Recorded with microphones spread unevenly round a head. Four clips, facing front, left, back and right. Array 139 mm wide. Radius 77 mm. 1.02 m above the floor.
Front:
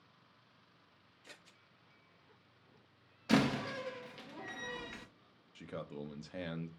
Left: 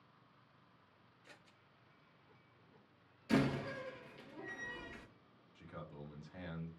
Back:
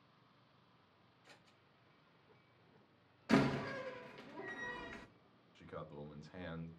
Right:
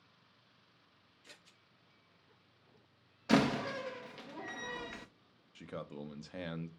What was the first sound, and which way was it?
Scissors, 25° right.